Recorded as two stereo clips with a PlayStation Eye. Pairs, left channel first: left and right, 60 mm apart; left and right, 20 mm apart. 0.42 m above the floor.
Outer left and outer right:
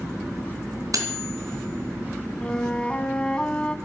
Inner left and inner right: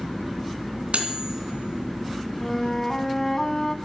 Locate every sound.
0.9 s cutlery clinking: 75° right (ahead or behind), 2.5 m
2.4 s a flute: 15° left (ahead or behind), 1.1 m